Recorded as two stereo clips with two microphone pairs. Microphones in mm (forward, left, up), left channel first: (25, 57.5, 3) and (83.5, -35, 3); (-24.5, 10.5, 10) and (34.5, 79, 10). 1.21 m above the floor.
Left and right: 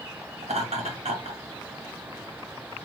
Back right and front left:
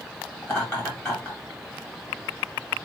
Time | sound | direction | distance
0.4 | laughter | 65° right | 1.6 m